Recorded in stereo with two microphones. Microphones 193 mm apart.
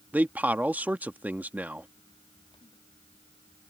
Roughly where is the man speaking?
Centre.